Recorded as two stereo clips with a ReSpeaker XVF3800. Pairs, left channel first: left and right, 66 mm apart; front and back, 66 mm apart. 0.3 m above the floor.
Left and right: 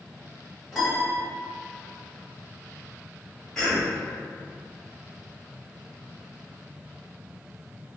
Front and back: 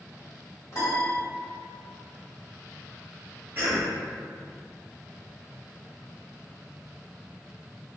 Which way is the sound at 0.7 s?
10° left.